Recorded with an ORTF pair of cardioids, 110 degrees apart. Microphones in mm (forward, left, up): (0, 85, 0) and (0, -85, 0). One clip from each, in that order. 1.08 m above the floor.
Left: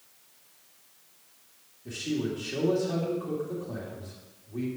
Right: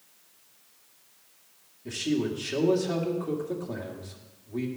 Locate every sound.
1.9 s a man speaking: 30° right, 2.5 m